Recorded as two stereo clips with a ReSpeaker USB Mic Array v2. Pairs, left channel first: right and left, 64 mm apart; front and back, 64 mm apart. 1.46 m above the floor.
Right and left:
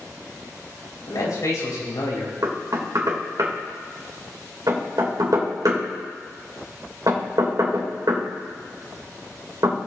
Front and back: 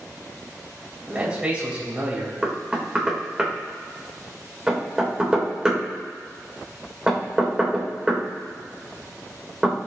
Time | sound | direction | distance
1.1 | a man speaking | 110° right | 3.5 m
2.4 | knocking | 105° left | 2 m